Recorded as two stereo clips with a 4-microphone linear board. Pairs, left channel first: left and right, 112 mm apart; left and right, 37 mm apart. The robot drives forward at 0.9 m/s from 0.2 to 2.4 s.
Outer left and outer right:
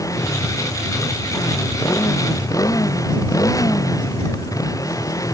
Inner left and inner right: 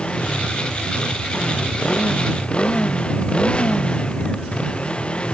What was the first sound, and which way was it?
A motorcycle, 30° left (ahead or behind).